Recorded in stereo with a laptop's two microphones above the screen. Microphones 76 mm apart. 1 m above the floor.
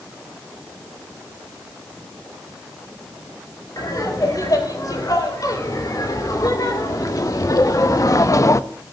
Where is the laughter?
55° left (ahead or behind), 4 m; by 8.6 s 45° left (ahead or behind), 0.6 m.